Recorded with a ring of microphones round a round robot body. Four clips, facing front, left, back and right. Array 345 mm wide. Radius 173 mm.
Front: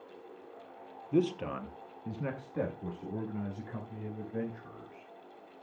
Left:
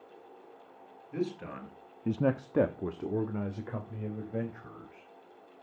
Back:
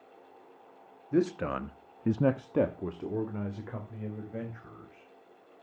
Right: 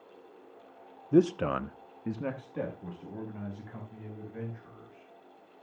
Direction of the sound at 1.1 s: 100° right.